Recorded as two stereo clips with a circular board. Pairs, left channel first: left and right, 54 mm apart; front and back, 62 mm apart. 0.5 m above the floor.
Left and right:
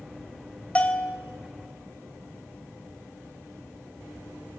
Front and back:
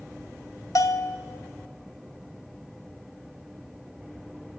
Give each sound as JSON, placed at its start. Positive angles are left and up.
{"t": 0.8, "sound": "a bell", "azimuth_deg": 25, "distance_m": 0.7}